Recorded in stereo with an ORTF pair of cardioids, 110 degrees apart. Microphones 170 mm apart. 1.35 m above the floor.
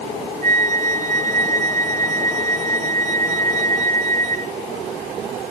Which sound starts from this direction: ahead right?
A flute, at 0.4 s.